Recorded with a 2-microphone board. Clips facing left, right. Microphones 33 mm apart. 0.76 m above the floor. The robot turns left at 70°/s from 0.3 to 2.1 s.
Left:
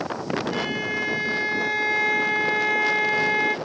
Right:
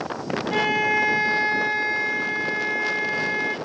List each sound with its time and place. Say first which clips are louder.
0.5 s a violin: right 5 dB; 95° right, 0.8 m; by 3.5 s 155° left, 0.8 m